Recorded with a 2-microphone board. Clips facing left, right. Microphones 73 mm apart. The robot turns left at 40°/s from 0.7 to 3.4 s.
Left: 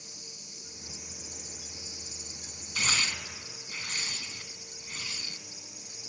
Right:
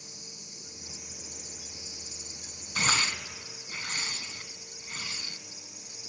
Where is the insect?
155° right, 4 m; by 6.1 s 95° left, 4 m.